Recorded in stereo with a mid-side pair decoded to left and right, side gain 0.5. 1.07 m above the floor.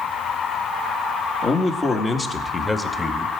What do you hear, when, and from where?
1.4 s a man speaking: 45° left, 2 m; by 3.3 s 10° left, 1.9 m